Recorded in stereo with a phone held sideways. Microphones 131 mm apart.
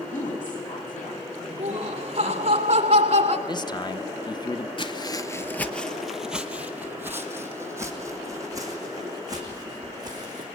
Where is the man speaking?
35° left (ahead or behind), 0.7 m.